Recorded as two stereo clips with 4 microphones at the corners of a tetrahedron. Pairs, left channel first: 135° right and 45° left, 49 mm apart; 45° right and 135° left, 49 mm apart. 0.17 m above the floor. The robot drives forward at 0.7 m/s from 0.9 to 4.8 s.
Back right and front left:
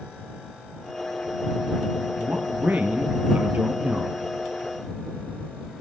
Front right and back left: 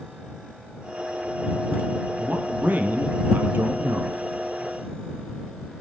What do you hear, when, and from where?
2.2 s a man speaking: 80° left, 4 m; by 4.3 s 105° left, 4 m